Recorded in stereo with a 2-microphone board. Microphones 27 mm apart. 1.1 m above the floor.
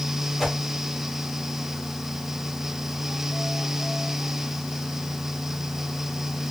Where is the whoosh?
Centre (ahead or behind), 1.1 m.